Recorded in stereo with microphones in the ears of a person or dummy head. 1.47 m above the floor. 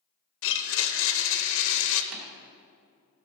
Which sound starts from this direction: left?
A blender, at 0.4 s.